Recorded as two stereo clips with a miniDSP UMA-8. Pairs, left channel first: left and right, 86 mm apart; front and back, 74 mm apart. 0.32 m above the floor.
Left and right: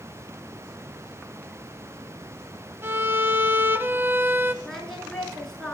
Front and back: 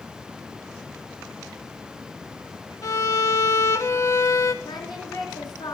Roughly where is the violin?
Ahead right.